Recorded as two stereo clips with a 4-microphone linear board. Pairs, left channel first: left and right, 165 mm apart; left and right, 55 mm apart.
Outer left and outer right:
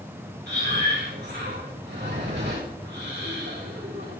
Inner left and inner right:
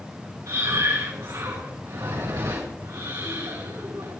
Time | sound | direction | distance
0.5 | breathing | 85° right | 4.5 m